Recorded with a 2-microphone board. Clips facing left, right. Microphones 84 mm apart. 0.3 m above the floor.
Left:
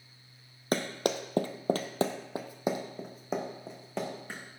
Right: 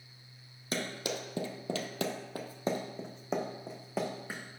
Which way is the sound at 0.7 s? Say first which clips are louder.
Left 6 dB; 60° left (ahead or behind).